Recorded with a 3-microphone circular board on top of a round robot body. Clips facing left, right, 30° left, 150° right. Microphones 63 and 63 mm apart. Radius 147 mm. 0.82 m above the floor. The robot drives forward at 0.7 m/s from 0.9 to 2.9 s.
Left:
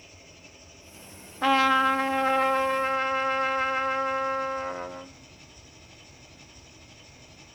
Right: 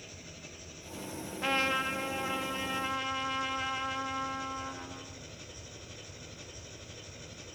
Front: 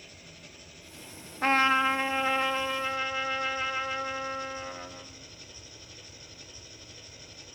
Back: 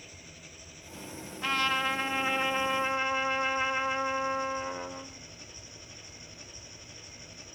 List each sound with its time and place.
0.0 s an engine running: 65° right, 6 m; by 7.5 s 80° right, 5.5 m
1.4 s a trumpet: 85° left, 0.9 m; by 5.1 s 140° left, 1.3 m